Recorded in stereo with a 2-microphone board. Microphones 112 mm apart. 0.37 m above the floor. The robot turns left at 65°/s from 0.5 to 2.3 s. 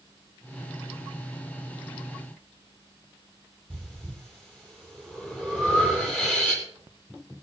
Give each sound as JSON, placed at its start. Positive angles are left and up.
{"t": 3.7, "sound": "breathing", "side_deg": 10, "distance_m": 4.5}